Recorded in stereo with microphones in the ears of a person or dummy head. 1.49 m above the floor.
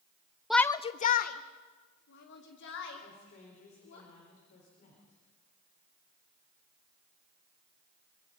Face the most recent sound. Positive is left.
turn(degrees=55)  # may be behind; listen again after turning